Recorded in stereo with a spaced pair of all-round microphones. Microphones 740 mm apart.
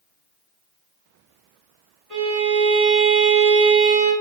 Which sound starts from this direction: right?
A violin, at 2.1 s.